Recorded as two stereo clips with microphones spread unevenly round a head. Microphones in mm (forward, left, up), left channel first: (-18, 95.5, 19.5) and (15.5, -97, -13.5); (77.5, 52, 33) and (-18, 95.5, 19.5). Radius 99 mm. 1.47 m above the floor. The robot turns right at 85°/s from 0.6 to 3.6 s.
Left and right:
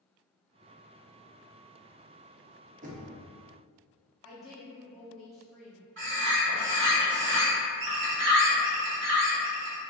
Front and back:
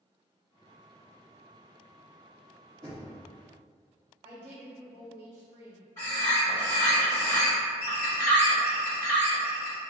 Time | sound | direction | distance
2.8 | knocking | 135° right | 0.5 m
4.2 | a woman speaking | 175° right | 1.0 m
6.0 | a bird | 85° right | 1.0 m